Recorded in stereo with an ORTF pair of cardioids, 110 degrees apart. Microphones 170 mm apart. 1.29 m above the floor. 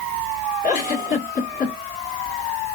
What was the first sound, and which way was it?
A giggle, 55° left.